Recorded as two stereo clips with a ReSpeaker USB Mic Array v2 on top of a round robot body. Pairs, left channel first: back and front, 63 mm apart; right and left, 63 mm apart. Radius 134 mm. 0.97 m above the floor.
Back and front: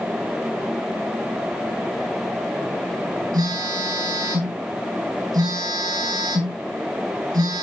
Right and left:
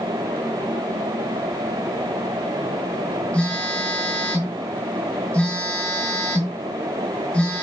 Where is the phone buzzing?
10° right, 8 m.